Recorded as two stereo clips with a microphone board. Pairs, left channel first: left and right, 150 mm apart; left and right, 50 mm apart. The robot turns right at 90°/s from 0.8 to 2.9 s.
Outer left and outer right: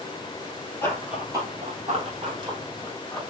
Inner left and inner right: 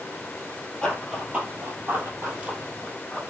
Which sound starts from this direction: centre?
Running footsteps, at 0.8 s.